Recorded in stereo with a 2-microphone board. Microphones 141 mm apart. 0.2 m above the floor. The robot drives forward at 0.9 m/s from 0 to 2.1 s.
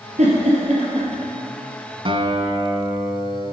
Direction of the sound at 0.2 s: 60° right (ahead or behind).